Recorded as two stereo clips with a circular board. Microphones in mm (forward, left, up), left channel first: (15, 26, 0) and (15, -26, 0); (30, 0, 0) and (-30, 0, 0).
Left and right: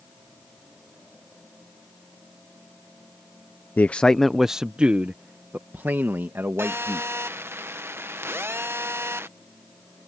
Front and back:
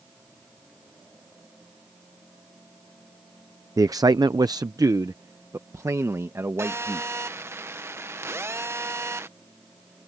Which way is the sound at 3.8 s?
145° left.